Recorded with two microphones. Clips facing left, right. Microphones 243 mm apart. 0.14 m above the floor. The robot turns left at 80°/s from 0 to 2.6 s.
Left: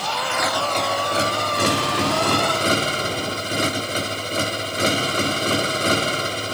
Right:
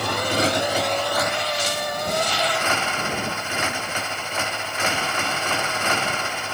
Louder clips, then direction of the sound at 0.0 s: Right 4 dB; 115° right.